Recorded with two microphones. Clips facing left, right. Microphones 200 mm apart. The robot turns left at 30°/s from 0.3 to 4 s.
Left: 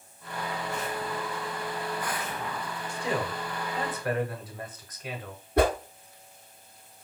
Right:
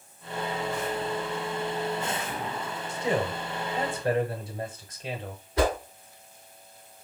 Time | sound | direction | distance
2.9 | a man speaking | 20° right (ahead or behind) | 1.0 m
5.6 | a whoosh | 60° left (ahead or behind) | 1.1 m